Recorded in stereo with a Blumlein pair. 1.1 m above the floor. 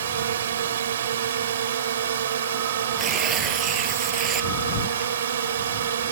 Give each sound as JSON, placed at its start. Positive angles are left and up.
{"t": 0.0, "sound": "a drone", "azimuth_deg": -65}
{"t": 3.0, "sound": "tearing paper", "azimuth_deg": -25}